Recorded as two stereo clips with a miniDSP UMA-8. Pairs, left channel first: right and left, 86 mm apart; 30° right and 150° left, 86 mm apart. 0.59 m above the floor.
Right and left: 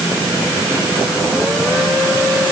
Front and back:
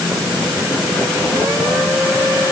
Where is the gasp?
No gasp in this recording.